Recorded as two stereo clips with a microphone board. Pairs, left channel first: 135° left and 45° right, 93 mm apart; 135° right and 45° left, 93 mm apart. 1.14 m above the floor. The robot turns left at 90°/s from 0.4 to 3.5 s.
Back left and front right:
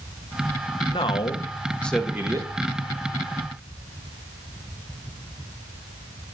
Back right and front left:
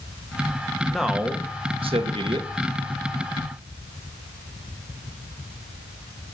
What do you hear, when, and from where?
0.9 s a man speaking: 145° left, 1.3 m; by 2.5 s straight ahead, 1.3 m